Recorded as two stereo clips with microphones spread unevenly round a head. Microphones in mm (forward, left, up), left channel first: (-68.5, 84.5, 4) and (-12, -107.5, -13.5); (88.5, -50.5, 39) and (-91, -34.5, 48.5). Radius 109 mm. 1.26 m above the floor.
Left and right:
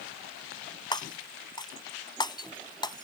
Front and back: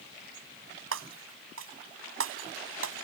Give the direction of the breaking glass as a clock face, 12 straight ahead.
6 o'clock.